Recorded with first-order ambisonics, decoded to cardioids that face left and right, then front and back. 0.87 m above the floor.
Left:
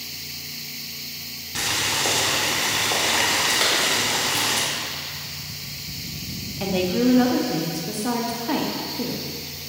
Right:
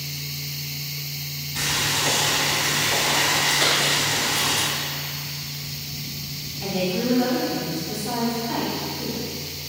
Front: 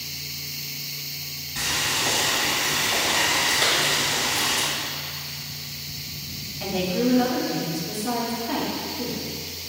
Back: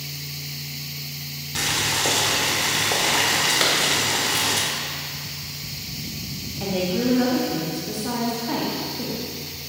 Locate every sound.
1.6 s boiling: 150° left, 1.7 m
3.6 s a clap: 160° left, 2 m
6.6 s a woman speaking: 100° left, 1.1 m